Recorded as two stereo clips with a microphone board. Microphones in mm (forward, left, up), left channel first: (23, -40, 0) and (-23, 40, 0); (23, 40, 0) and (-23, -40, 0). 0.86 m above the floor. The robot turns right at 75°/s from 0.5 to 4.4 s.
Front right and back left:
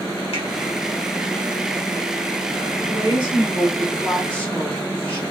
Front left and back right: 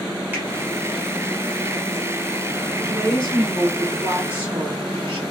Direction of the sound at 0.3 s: 50° right.